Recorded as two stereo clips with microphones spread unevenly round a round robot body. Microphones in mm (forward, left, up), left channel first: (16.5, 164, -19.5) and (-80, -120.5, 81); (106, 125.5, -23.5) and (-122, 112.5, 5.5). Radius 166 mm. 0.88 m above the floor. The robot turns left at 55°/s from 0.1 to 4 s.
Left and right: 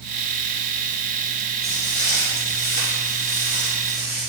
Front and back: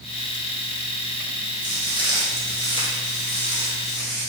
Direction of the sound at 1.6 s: 170° right.